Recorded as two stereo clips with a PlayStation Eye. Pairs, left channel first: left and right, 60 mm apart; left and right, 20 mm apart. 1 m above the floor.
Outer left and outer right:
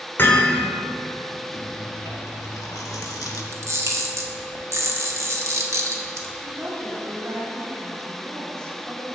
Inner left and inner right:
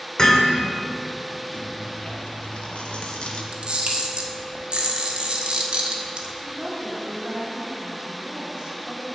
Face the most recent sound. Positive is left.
turn(degrees=-45)  # may be behind; listen again after turning